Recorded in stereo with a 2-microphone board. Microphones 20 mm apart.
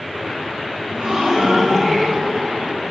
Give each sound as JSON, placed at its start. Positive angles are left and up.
{"t": 0.9, "sound": "a gasp", "side_deg": -50, "distance_m": 2.5}